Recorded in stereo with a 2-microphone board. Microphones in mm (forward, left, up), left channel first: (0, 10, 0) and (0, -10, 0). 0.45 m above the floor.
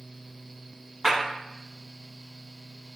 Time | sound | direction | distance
1.0 | a clap | 35° right (ahead or behind) | 1.1 m